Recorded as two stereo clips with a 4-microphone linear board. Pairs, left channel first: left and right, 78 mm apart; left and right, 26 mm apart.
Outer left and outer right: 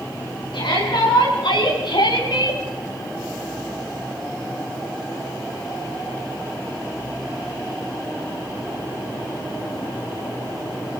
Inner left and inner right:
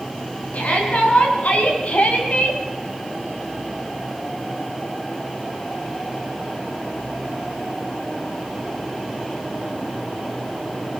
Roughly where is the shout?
Left.